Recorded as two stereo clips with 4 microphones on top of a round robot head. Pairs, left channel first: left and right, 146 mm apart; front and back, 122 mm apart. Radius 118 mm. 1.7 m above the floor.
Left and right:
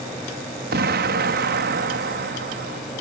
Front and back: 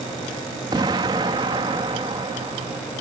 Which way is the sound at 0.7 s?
115° right.